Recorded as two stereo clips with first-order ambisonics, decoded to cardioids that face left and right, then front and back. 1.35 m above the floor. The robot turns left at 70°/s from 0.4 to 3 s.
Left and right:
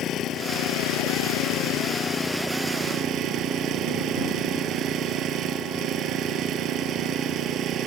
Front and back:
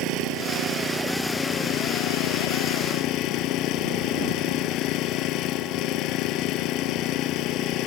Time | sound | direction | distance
0.0 | an engine running | 145° left | ?